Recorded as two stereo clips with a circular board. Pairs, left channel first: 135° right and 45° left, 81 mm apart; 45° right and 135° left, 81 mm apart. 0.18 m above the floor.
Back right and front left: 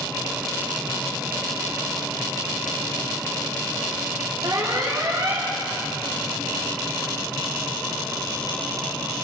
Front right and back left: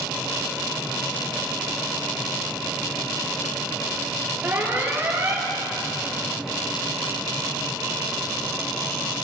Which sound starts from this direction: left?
An alarm, at 4.4 s.